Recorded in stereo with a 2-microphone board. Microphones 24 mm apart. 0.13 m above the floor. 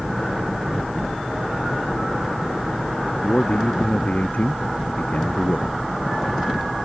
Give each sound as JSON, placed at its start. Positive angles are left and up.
{"t": 3.2, "sound": "a man speaking", "side_deg": 65}